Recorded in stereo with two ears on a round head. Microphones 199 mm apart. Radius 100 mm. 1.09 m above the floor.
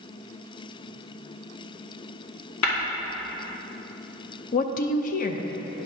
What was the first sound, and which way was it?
Tapping, 70° left (ahead or behind).